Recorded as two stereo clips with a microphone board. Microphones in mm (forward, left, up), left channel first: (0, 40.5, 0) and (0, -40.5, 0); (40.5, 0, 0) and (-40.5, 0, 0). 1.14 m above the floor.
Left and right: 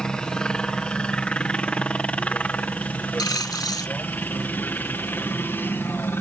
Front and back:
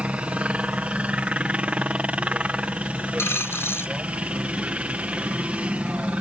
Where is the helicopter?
150° left; by 6.2 s 120° left.